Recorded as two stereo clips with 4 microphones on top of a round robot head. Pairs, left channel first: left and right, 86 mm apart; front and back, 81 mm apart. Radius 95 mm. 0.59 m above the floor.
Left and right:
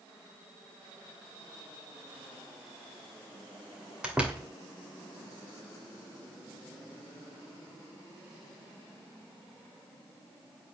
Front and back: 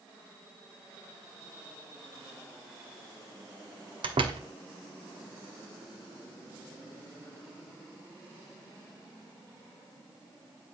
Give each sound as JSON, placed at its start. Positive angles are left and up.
{"t": 4.0, "sound": "a door slam", "azimuth_deg": -170, "distance_m": 2.0}